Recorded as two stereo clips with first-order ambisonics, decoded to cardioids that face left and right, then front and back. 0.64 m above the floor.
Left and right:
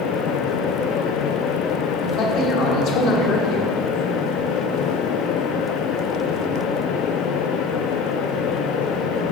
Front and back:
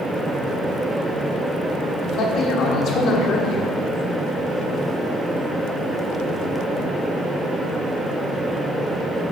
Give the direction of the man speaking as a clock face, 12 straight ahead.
10 o'clock.